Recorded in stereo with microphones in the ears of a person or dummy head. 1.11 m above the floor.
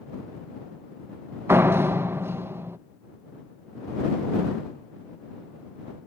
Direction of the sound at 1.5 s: 10° right (ahead or behind).